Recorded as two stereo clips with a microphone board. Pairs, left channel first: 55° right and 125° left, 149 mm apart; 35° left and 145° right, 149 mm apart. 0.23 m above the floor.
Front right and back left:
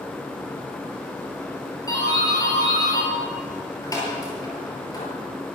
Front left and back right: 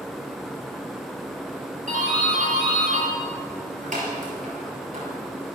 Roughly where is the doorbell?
Behind right.